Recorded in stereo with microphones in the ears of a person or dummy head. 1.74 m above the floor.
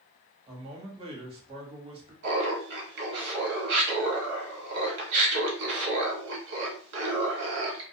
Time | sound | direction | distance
0.5 | a man speaking | 35° right (ahead or behind) | 1.1 m
2.2 | laughter | 60° right (ahead or behind) | 1.4 m